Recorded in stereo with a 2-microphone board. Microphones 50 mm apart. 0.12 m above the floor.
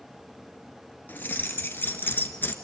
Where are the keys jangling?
40° left (ahead or behind), 1.3 m.